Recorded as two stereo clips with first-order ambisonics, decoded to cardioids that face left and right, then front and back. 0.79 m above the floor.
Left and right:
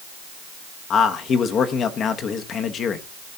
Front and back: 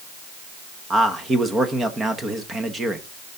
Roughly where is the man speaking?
Behind left.